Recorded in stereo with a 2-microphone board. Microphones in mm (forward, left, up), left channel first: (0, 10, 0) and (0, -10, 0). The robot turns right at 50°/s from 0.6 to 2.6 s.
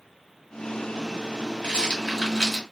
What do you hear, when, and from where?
1.6 s a rattle: 55° left (ahead or behind), 1.7 m; by 2.6 s 20° left (ahead or behind), 1.7 m